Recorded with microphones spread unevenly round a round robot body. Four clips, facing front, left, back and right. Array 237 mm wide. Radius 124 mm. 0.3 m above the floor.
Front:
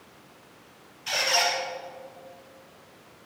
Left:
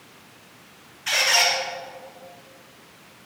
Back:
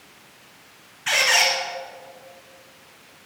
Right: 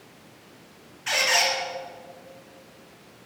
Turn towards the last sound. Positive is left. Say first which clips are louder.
# left 1 dB, back 4 dB
turn(degrees=170)